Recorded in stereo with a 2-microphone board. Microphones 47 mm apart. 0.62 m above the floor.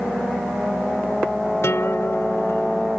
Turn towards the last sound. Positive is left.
turn(degrees=70)  # may be behind; listen again after turning